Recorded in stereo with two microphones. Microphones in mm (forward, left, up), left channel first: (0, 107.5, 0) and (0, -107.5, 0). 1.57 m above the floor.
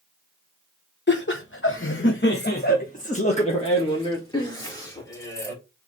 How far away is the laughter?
About 1.0 m.